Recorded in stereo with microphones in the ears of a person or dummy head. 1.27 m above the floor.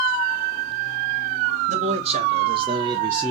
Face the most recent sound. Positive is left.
turn(degrees=-5)  # may be behind; listen again after turning